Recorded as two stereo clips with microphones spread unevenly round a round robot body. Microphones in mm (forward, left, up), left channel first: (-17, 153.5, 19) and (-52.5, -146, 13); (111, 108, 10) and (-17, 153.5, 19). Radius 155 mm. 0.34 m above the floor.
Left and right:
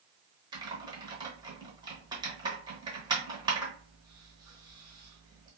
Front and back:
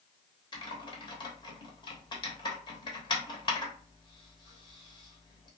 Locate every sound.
0.5 s typing on a keyboard: 30° right, 0.9 m